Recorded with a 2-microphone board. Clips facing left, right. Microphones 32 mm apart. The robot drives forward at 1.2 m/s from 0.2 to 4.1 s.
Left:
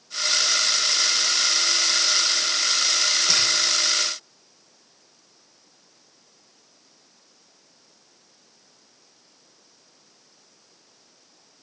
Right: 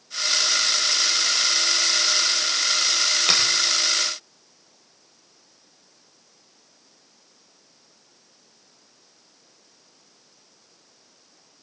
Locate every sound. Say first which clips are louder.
3.3 s a finger snap: right 3 dB; 65° right (ahead or behind), 5 m